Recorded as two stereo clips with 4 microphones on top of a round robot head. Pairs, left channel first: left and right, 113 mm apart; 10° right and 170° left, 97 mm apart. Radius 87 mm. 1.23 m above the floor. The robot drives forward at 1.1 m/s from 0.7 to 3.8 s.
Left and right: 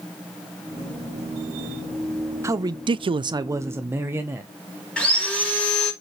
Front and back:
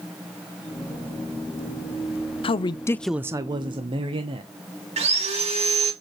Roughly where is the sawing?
Behind.